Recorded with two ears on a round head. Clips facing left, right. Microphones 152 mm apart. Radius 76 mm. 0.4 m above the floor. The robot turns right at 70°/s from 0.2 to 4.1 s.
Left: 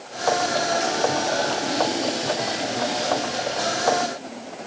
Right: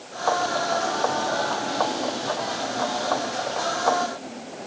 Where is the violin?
I don't hear a violin.